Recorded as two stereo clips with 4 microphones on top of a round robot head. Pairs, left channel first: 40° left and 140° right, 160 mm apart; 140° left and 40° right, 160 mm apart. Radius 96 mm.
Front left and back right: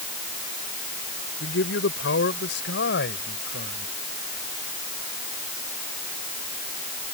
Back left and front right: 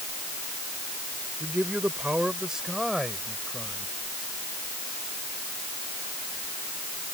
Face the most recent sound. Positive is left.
turn(degrees=55)